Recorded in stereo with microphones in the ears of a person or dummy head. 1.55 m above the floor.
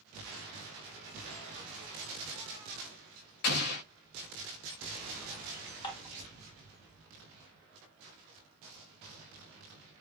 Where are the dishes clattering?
20° left (ahead or behind), 0.9 m.